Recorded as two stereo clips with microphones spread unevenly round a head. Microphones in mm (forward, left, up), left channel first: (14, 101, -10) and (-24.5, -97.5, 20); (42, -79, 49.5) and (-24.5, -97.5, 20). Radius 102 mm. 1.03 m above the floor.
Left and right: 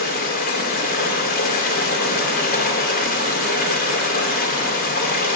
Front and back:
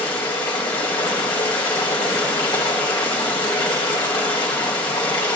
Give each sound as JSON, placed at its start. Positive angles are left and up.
{"t": 0.0, "sound": "running water", "azimuth_deg": 30, "distance_m": 1.8}